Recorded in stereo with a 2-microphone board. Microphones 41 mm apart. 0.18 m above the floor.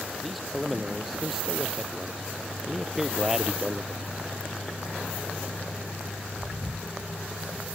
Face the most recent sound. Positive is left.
turn(degrees=-20)  # may be behind; listen again after turning